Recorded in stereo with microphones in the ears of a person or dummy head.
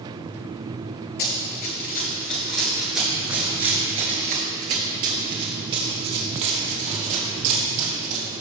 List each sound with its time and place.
1.2 s running footsteps: 40° left (ahead or behind), 1.8 m; by 8.3 s 70° right (ahead or behind), 3.5 m